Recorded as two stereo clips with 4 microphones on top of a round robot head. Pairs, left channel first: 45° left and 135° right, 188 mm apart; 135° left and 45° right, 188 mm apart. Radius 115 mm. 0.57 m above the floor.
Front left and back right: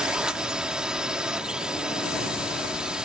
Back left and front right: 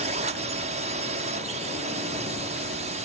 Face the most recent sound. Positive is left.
turn(degrees=-50)